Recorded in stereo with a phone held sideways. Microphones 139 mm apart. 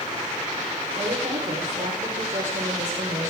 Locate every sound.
0.9 s a woman speaking: 75° right (ahead or behind), 4 m; by 3.3 s 80° right, 5.5 m